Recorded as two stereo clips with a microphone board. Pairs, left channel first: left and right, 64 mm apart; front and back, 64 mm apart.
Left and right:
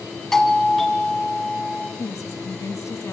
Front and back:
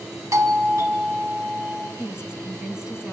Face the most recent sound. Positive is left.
turn(degrees=100)